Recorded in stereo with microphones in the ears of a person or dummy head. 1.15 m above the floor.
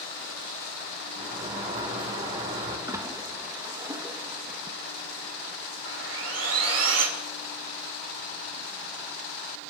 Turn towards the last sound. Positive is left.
turn(degrees=-70)  # may be behind; listen again after turning